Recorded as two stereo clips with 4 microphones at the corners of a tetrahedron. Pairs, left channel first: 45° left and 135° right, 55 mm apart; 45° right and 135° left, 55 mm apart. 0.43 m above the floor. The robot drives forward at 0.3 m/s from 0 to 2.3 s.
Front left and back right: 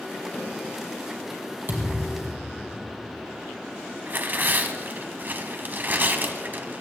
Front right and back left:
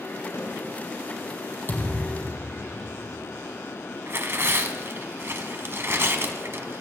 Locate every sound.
0.3 s a snare drum: 40° right, 5.5 m
1.7 s a thud: 90° right, 3.5 m
4.1 s tearing paper: 175° left, 1.3 m